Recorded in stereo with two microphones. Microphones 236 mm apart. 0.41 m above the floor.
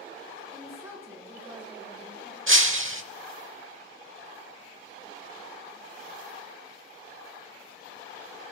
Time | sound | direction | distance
0.5 | a woman speaking | 15° right (ahead or behind) | 3.5 m
2.5 | breaking glass | 60° right (ahead or behind) | 0.9 m